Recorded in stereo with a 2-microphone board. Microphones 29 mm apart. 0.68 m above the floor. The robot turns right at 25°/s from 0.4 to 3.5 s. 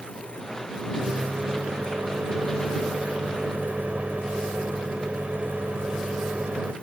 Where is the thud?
No thud in this recording.